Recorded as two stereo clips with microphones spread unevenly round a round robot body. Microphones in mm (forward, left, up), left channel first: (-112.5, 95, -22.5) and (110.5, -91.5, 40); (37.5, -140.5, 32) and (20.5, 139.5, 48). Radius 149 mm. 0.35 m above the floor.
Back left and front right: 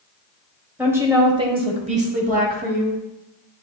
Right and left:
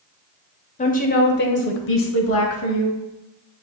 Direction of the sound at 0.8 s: 135° right.